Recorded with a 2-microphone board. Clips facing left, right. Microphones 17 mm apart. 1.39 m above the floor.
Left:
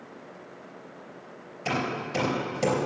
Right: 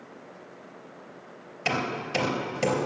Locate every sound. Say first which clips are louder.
1.6 s hammering: right 1 dB; 40° right (ahead or behind), 3.5 m